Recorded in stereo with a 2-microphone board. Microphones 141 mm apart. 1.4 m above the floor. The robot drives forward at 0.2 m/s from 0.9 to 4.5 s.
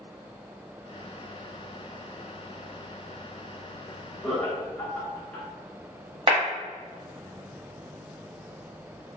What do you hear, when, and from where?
4.2 s laughter: 5° left (ahead or behind), 1.0 m
6.3 s a clap: 40° right (ahead or behind), 0.9 m